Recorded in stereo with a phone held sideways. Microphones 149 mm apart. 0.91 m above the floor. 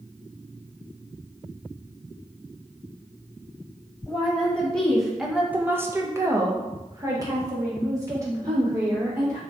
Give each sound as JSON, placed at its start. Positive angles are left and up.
{"t": 4.1, "sound": "a woman speaking", "side_deg": 10, "distance_m": 1.0}